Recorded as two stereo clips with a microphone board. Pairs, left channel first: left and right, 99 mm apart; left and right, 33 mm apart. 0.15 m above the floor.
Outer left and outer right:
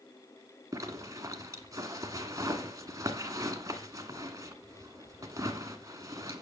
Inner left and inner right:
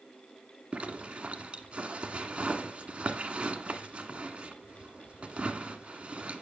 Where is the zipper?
35° right (ahead or behind), 1.5 m.